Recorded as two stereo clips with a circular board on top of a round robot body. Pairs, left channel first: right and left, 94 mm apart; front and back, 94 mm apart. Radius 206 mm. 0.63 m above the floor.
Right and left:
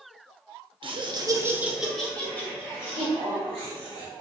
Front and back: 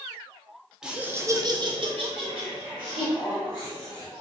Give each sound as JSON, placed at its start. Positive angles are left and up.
{"t": 0.8, "sound": "laughter", "azimuth_deg": 100, "distance_m": 0.9}